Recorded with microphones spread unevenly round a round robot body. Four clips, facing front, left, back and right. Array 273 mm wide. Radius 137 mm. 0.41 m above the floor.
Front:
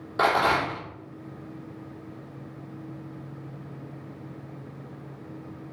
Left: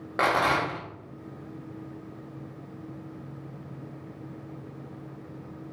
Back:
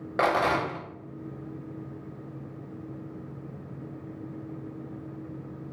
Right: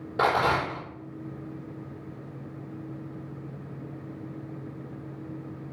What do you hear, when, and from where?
0.2 s a rattle: 120° left, 1.6 m